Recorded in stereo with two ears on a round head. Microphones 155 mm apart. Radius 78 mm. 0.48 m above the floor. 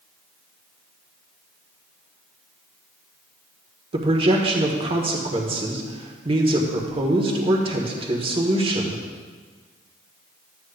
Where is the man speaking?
30° right (ahead or behind), 1.4 m.